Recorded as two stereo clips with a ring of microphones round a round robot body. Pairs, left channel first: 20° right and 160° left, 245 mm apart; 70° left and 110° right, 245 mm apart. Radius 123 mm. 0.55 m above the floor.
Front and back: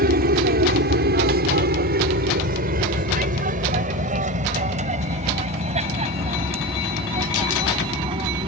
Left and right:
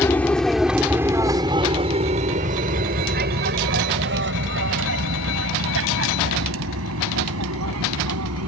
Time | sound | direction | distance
0.0 | an aircraft | 145° left | ?